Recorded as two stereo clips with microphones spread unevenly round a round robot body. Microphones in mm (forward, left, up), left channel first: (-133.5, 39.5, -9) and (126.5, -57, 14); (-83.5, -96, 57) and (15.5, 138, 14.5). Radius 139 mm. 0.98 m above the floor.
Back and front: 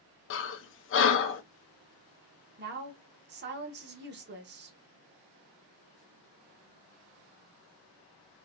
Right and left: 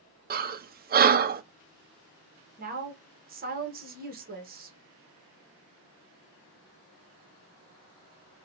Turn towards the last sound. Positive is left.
turn(degrees=30)